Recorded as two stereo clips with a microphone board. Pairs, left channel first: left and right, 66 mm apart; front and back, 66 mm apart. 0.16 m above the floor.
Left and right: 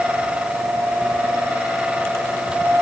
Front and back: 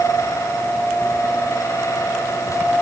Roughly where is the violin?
No violin in this recording.